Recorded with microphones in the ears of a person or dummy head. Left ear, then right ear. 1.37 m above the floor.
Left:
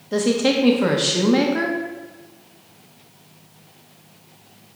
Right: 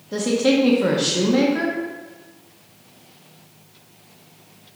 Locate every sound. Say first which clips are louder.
0.1 s a woman speaking: even; 15° left (ahead or behind), 0.6 m